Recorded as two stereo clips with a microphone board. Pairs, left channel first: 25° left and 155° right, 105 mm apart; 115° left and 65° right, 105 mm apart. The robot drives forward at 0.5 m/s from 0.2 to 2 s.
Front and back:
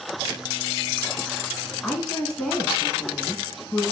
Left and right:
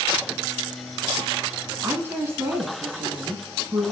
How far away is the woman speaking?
About 1.1 m.